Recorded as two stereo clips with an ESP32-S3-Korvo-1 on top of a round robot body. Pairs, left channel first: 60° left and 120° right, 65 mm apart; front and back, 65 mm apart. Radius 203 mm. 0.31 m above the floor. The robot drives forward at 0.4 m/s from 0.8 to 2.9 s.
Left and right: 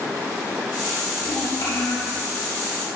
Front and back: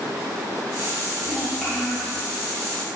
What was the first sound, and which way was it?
A child speaking, 85° left.